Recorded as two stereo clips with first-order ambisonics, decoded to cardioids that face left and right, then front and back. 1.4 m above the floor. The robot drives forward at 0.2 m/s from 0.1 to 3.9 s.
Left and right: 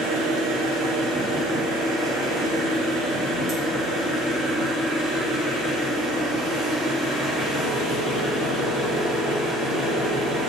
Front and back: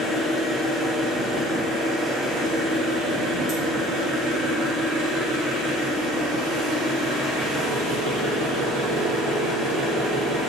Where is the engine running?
95° right, 1.0 m; by 10.5 s 130° right, 1.3 m.